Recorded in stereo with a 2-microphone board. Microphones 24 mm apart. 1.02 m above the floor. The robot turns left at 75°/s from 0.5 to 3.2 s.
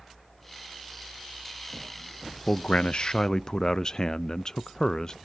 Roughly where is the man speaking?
Left.